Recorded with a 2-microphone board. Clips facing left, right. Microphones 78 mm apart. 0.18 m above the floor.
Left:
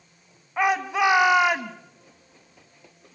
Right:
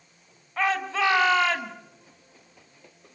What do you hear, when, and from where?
0.6 s a shout: 15° left (ahead or behind), 1.2 m